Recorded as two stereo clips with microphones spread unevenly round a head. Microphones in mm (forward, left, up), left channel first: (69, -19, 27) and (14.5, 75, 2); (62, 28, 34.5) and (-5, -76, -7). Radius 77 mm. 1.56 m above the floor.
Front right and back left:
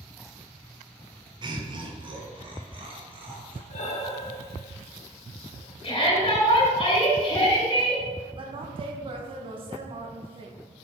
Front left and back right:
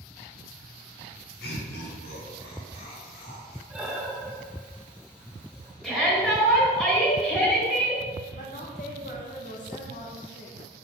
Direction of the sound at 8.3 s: 75° left.